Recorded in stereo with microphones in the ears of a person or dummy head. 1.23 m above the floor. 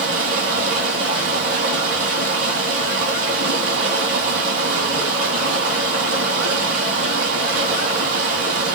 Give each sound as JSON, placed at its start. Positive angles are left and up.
{"t": 0.0, "sound": "running water", "side_deg": -60, "distance_m": 2.0}